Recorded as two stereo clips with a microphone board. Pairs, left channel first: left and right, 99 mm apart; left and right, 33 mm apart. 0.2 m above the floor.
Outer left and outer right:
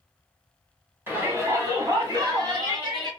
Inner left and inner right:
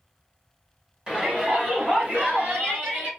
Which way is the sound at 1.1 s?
20° right (ahead or behind).